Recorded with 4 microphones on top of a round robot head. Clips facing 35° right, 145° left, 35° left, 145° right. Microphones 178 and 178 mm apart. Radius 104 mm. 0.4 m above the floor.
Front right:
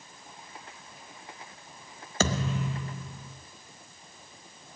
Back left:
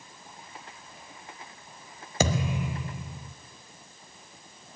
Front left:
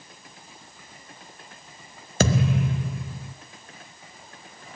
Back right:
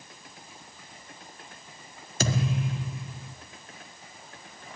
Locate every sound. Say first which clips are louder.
2.2 s a thud: back left 1 dB, front left 6 dB; 65° left, 0.8 m